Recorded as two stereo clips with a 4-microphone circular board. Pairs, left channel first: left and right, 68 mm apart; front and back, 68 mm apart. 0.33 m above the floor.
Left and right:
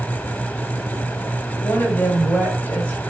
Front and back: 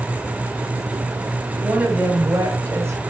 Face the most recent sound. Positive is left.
turn(degrees=150)